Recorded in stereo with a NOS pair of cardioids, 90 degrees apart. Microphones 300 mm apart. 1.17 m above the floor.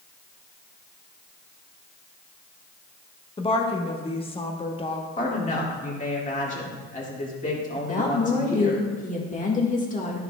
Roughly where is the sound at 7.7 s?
Ahead left.